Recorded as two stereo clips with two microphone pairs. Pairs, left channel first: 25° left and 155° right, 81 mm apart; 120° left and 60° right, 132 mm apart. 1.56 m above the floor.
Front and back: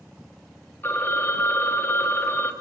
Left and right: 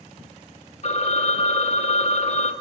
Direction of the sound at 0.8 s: 90° left.